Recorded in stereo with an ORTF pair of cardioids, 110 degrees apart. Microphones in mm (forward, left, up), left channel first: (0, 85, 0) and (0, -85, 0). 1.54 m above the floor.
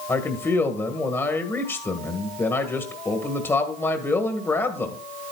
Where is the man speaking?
15° left, 1.6 m.